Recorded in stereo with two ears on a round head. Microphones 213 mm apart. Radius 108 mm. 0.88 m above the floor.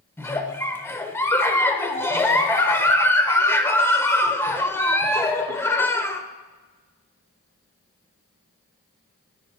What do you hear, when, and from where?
0.2 s a giggle: 10° left (ahead or behind), 0.9 m